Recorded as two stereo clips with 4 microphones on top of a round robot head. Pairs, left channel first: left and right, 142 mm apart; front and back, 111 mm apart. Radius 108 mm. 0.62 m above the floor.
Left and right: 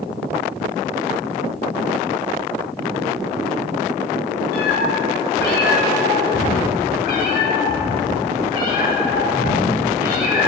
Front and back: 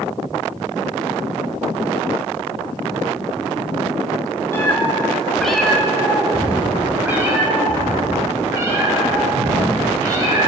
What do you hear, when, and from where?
4.5 s a cat meowing: 70° left, 1.4 m; by 10.5 s 120° left, 4 m